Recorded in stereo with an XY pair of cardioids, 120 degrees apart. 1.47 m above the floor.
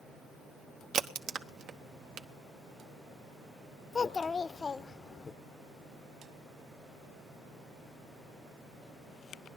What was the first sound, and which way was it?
A crack, 60° right.